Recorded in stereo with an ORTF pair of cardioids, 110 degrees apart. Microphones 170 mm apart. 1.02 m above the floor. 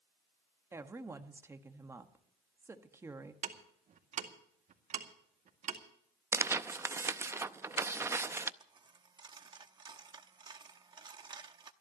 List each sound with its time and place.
0.7 s a woman speaking: 15° right, 1.4 m
3.4 s ticking: 50° right, 2 m
6.3 s tearing paper: 15° right, 0.5 m
8.6 s a dropped coin: 25° right, 0.9 m